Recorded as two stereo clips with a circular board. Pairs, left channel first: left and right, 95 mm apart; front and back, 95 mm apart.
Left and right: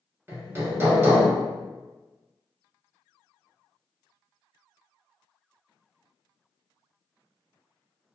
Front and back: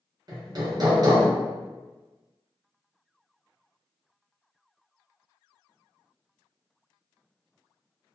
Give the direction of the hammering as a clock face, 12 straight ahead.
5 o'clock.